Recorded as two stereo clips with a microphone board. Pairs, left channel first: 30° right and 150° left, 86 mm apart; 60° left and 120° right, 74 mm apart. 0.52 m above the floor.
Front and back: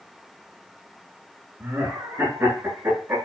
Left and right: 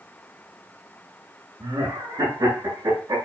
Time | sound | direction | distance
1.6 | laughter | 155° right | 5 m